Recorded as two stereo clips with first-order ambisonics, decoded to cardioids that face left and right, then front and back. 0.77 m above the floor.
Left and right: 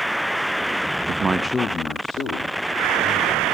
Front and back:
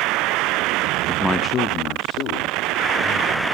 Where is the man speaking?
110° right, 0.5 m; by 3.5 s 45° left, 2.5 m.